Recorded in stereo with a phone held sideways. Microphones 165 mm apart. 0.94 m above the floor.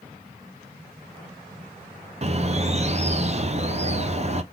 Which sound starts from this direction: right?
A bird, at 2.2 s.